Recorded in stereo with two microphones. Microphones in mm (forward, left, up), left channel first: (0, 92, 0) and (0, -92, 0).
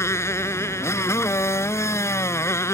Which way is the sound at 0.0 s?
15° left (ahead or behind).